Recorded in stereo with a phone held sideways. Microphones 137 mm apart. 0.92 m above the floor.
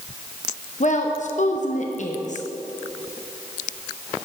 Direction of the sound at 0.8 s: 60° left (ahead or behind).